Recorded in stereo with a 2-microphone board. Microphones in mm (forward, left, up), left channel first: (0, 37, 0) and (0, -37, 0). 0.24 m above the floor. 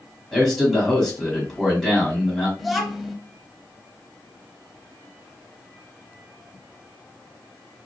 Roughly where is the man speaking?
Centre.